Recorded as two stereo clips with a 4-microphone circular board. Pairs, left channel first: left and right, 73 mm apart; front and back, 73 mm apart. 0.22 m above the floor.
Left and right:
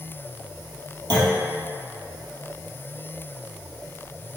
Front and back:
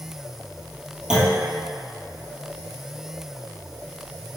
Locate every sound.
1.1 s a clunk: 95° right, 1.4 m